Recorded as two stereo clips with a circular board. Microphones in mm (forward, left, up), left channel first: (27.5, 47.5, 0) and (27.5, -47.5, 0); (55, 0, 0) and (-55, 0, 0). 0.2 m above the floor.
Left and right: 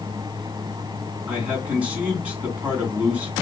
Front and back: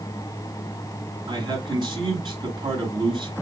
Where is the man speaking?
160° right, 2.5 m.